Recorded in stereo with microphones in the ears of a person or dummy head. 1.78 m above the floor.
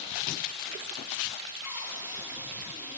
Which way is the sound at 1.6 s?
15° right (ahead or behind).